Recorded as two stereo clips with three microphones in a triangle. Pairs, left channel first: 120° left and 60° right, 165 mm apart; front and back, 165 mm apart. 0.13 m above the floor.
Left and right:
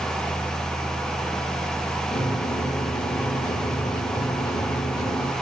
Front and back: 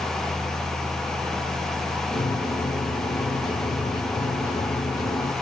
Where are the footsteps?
No footsteps in this recording.